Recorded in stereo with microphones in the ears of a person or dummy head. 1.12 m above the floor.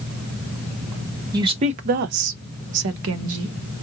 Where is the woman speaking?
20° right (ahead or behind), 0.7 m; by 3.6 s 75° right (ahead or behind), 1.0 m.